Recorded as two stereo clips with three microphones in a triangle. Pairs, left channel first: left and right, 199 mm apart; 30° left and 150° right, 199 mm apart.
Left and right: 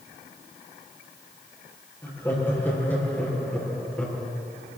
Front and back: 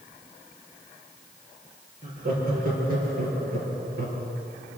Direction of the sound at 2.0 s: 170° left.